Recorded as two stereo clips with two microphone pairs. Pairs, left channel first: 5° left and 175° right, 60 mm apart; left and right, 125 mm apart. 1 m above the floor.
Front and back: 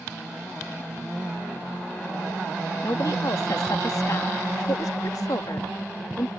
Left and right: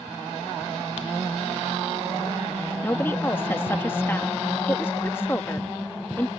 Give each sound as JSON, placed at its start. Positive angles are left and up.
{"t": 2.8, "sound": "a woman speaking", "azimuth_deg": 20}